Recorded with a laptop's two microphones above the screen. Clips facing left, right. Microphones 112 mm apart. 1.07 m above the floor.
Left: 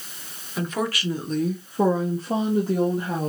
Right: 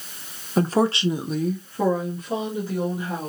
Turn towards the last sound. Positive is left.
turn(degrees=55)  # may be behind; listen again after turning